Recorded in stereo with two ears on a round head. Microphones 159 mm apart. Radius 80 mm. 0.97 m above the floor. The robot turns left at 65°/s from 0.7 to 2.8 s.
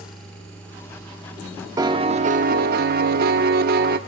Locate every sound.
1.8 s a piano: 25° right, 0.6 m; by 4.0 s 90° right, 0.6 m